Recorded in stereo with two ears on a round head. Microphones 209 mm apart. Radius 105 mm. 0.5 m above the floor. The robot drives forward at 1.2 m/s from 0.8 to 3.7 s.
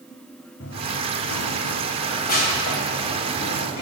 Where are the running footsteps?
50° left (ahead or behind), 1.6 m; by 3.8 s 25° left (ahead or behind), 5 m.